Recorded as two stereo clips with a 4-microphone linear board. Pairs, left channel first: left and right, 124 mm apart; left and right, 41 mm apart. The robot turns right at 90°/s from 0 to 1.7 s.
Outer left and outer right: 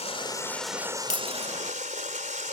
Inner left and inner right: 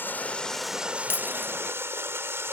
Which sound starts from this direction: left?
Breaking glass, at 1.1 s.